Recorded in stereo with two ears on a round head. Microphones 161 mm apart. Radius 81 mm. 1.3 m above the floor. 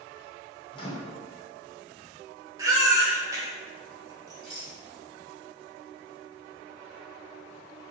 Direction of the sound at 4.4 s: Centre (ahead or behind).